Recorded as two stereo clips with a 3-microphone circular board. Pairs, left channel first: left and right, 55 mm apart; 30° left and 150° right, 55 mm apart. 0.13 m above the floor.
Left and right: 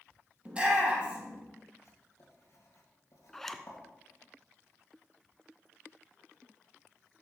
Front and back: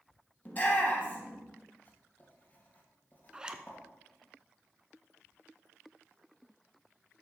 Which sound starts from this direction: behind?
A zipper, at 3.3 s.